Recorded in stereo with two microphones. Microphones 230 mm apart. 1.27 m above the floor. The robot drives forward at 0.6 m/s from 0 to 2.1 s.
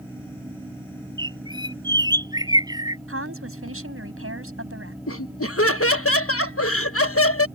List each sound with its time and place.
1.2 s a bird: 20° right (ahead or behind); by 3.0 s 15° right (ahead or behind)
3.1 s a woman speaking: 65° right (ahead or behind)
5.1 s laughter: 70° left (ahead or behind)